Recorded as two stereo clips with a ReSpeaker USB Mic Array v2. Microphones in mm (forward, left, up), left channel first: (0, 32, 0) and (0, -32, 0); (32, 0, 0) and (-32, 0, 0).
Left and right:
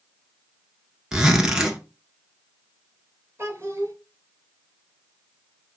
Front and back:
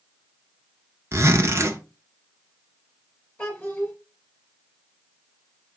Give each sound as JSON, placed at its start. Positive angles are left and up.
{"t": 1.1, "sound": "a zipper", "azimuth_deg": -165, "distance_m": 0.9}
{"t": 3.4, "sound": "a child speaking", "azimuth_deg": -55, "distance_m": 1.8}